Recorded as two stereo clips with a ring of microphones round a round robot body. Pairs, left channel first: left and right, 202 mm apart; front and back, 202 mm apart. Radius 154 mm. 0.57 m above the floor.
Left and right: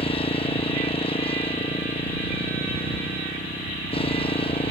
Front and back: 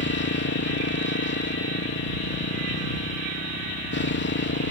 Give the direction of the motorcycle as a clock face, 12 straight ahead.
11 o'clock.